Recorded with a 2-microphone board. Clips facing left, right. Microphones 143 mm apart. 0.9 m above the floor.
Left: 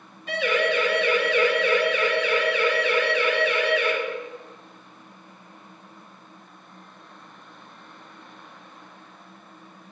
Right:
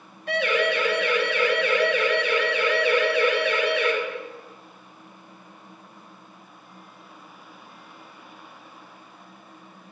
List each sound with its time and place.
0.3 s a siren: 60° right (ahead or behind), 9.5 m; by 3.9 s 50° right (ahead or behind), 11 m